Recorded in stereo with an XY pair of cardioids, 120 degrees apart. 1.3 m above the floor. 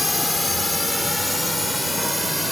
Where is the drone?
20° left; by 2.5 s 5° left.